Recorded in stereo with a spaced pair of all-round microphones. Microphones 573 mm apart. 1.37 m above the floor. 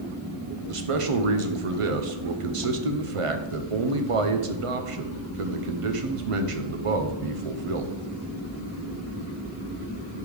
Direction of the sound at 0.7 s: 65° right (ahead or behind).